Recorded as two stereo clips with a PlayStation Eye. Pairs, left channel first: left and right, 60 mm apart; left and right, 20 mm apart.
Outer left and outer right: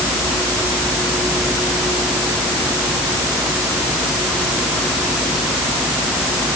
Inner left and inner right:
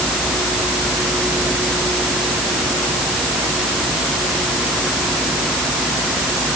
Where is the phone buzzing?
No phone buzzing in this recording.